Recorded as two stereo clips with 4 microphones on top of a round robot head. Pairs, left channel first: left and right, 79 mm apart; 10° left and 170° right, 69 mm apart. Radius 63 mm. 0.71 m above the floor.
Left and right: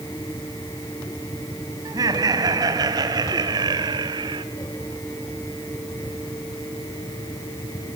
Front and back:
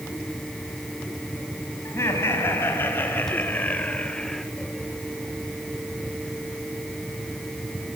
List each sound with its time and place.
1.9 s laughter: 55° right, 5.5 m; by 4.5 s 75° right, 2 m